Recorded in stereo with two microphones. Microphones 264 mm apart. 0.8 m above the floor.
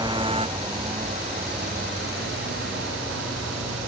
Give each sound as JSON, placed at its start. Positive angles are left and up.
{"t": 0.0, "sound": "a motorcycle", "side_deg": -15}